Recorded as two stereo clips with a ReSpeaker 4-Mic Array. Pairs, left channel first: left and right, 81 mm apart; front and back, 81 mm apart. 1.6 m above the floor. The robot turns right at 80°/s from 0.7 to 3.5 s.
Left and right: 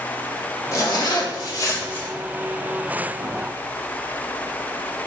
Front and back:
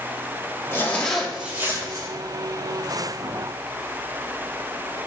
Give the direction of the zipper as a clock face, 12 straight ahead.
10 o'clock.